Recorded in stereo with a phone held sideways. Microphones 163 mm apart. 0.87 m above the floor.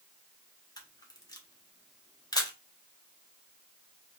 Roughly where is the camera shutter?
Left.